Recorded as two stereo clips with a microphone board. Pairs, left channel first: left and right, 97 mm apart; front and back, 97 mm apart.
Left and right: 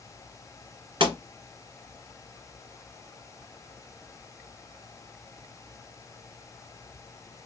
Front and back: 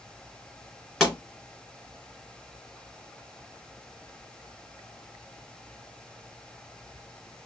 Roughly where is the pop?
Right.